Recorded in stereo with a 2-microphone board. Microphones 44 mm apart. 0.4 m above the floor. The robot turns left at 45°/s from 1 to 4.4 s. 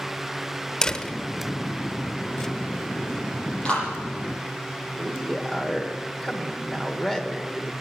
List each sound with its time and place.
0.8 s a door slam: 15° left (ahead or behind), 0.8 m
3.6 s a clap: 25° left (ahead or behind), 9 m; by 3.9 s 15° left (ahead or behind), 9 m
5.0 s a man speaking: 10° left (ahead or behind), 1.5 m